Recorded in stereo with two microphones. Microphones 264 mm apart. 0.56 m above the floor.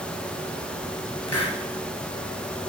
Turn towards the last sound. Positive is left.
turn(degrees=75)  # may be behind; listen again after turning